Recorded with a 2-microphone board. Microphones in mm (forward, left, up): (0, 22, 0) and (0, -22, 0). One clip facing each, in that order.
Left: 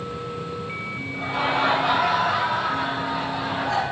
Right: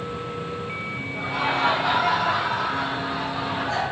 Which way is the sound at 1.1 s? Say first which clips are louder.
Left 1 dB; 60° left (ahead or behind).